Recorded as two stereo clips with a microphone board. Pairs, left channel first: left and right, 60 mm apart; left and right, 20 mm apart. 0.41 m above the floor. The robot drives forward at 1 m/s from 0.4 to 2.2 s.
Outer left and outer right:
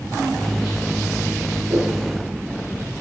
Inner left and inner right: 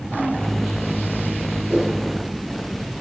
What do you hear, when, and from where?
1.7 s a whoosh: 80° right, 7.5 m; by 1.9 s 85° right, 7.5 m